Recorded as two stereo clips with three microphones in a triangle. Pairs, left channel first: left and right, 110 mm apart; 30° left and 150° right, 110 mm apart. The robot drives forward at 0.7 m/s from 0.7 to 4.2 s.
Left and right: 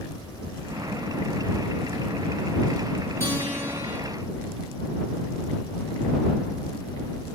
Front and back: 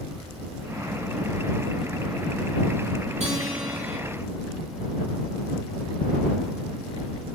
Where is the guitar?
155° right, 3 m; by 4.0 s 160° right, 3.5 m.